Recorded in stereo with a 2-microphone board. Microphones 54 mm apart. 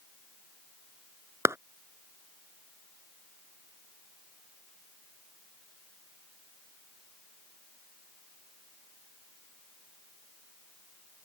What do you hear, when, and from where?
1.4 s a clap: 60° right (ahead or behind)